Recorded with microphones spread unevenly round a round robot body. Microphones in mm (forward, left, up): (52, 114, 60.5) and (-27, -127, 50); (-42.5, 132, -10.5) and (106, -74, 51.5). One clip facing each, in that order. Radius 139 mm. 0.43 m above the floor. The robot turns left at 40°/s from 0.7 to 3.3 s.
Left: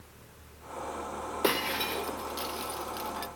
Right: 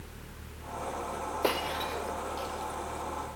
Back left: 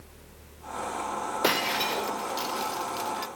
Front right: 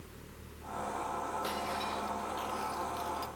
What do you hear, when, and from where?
1.4 s breaking glass: 140° left; by 3.3 s 65° left